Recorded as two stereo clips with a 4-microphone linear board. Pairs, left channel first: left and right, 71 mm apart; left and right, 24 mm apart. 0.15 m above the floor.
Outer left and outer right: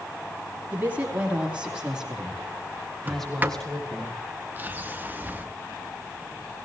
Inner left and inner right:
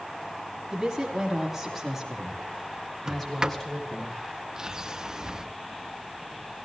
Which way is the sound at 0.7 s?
25° right (ahead or behind).